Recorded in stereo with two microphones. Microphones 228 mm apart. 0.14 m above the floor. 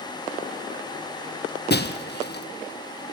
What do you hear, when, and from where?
1.7 s breaking glass: 45° left (ahead or behind), 1.8 m